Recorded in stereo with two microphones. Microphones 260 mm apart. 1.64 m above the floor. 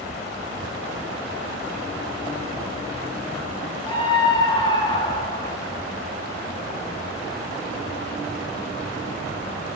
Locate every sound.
3.9 s a scream: 15° left (ahead or behind), 2.5 m